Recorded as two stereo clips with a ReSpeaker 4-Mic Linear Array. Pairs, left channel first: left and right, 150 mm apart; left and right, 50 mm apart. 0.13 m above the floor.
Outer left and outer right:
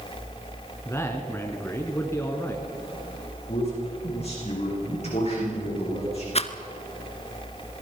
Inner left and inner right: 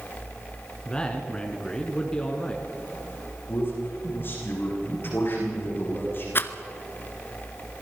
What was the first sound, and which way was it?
A man speaking, 15° left (ahead or behind).